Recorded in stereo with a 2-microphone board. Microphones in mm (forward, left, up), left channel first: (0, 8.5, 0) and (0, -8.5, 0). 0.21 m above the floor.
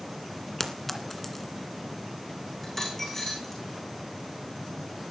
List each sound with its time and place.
0.6 s a clink: 15° left (ahead or behind), 2.0 m
2.6 s a dropped coin: 20° left (ahead or behind), 6.5 m